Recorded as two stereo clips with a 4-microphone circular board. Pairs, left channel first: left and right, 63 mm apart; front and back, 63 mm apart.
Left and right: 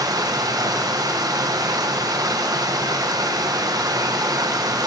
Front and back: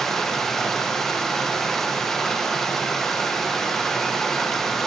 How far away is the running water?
About 0.9 m.